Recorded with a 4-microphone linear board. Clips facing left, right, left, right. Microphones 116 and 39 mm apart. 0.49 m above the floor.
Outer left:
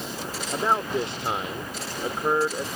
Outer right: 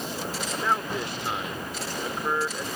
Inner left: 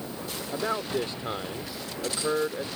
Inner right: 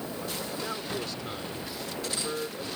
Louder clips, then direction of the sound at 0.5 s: Outer left 4 dB, inner left 9 dB; 30° left (ahead or behind).